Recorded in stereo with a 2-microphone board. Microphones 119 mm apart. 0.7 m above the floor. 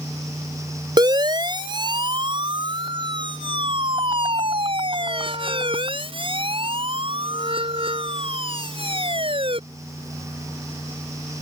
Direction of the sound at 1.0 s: 35° right (ahead or behind).